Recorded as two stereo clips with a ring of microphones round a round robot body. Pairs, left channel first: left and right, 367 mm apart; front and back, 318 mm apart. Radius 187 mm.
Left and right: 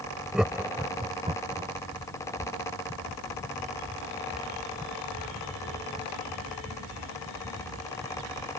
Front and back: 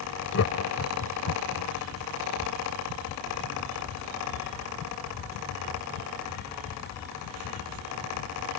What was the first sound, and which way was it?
Laughter, straight ahead.